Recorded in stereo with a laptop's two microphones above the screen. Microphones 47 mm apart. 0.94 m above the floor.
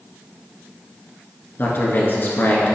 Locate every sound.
1.6 s a man speaking: 50° left (ahead or behind), 1.6 m